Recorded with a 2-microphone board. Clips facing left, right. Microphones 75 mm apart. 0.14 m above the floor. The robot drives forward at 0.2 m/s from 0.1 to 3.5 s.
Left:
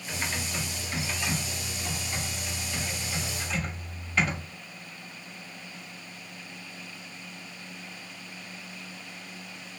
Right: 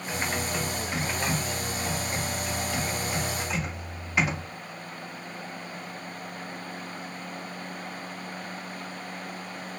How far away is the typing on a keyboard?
About 0.9 m.